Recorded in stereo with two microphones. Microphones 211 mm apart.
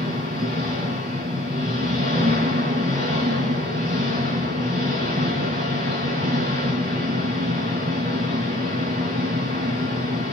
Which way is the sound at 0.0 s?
40° right (ahead or behind).